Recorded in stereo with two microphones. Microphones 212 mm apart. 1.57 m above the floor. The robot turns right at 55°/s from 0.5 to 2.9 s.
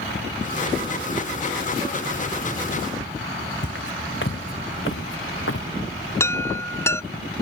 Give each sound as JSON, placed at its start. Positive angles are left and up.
{"t": 3.6, "sound": "footsteps", "side_deg": 50}
{"t": 6.2, "sound": "a chime", "side_deg": 10}